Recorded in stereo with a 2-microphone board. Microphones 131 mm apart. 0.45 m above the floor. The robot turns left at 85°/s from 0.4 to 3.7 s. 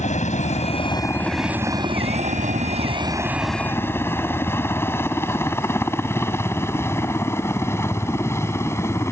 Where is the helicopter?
65° left (ahead or behind); by 9.1 s 20° left (ahead or behind).